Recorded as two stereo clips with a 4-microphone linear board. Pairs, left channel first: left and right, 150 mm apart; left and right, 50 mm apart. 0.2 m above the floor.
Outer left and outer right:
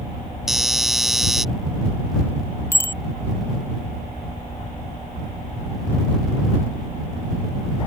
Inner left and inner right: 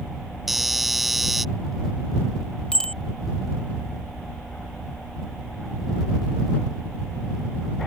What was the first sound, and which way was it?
A doorbell, 5° right (ahead or behind).